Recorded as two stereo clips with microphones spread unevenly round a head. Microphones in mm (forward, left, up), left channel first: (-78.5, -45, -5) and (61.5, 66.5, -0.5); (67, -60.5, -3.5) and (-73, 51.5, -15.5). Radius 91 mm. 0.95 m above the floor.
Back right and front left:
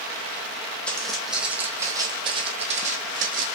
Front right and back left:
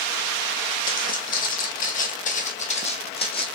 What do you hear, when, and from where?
0.9 s footsteps: 55° right, 1.6 m; by 3.5 s 15° left, 1.6 m